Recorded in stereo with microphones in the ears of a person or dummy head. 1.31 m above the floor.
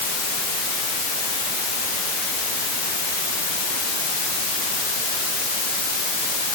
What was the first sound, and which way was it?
Only background noise.